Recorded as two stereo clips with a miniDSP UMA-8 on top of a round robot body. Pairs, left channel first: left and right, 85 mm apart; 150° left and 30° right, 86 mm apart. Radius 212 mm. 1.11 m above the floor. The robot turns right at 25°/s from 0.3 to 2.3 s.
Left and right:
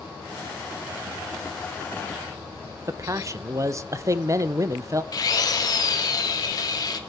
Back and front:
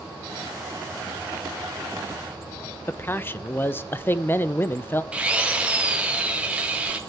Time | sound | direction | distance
2.9 | a man speaking | 145° right | 0.9 m
5.1 | a drill | 45° left | 1.7 m